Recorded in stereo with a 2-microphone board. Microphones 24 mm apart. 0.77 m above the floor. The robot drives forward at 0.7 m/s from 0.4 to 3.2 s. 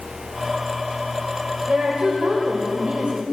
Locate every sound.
1.7 s a woman speaking: 35° right (ahead or behind), 4 m; by 3.2 s 50° right (ahead or behind), 3 m